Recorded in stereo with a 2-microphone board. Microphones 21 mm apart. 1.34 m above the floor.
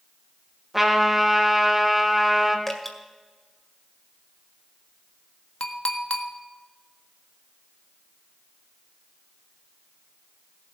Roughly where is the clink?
Left.